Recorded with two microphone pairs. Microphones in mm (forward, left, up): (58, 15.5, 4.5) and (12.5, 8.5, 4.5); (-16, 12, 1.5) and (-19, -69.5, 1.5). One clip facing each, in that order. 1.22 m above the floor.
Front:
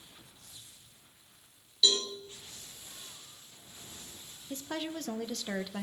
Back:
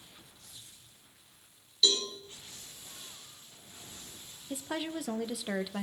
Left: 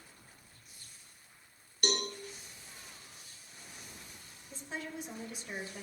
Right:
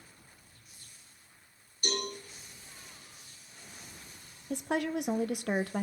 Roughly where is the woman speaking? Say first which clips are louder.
Back 1 dB, right 11 dB; right.